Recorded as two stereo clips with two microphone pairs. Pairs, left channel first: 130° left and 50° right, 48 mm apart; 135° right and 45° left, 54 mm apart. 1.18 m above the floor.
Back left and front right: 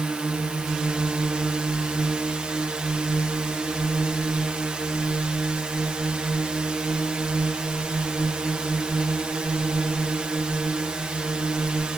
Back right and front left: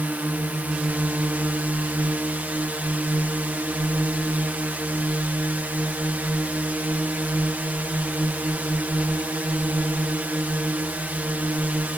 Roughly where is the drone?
Ahead.